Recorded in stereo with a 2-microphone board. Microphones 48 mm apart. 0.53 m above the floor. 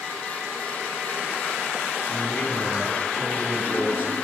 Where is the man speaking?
30° left (ahead or behind), 7 m; by 4.1 s 35° left (ahead or behind), 8.5 m.